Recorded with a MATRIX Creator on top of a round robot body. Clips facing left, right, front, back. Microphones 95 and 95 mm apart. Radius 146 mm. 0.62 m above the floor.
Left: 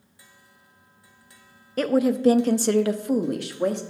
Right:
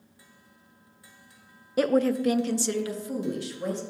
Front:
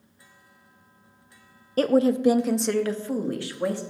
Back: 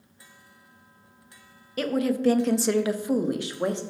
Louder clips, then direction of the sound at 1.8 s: Left 2 dB, front 5 dB; 15° right.